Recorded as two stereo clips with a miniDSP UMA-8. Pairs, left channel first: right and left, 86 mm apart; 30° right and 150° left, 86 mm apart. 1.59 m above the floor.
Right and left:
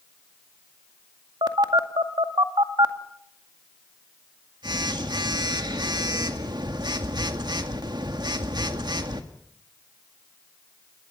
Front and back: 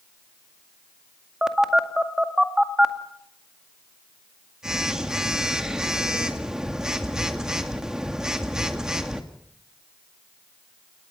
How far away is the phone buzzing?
About 2 m.